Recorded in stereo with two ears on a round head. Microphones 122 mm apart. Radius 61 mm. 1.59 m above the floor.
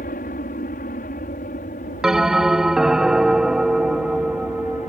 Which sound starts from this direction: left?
An aircraft, at 0.0 s.